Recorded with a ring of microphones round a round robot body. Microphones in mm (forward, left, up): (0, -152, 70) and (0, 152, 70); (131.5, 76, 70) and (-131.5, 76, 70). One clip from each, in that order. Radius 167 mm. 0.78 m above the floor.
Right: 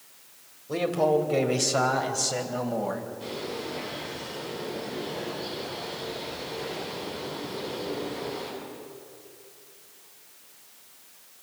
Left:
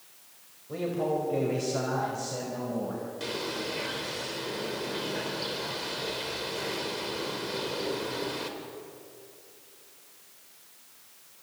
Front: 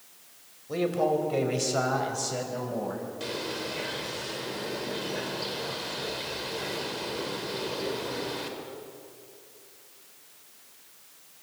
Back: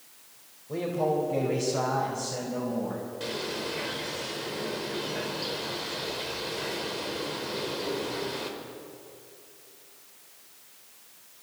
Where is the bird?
85° left, 4 m.